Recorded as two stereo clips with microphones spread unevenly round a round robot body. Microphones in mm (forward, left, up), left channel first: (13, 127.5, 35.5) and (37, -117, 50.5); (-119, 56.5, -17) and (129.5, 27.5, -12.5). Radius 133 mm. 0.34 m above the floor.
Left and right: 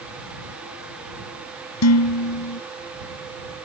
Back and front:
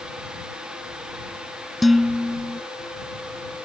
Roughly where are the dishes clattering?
Left.